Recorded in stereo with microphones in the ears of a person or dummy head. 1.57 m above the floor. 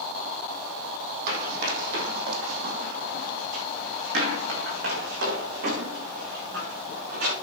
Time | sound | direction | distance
1.3 | running footsteps | 55° right (ahead or behind) | 4 m